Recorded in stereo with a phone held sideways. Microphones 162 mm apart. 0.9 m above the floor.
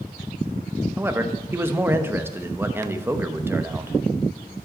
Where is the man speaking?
15° right (ahead or behind), 1.0 m.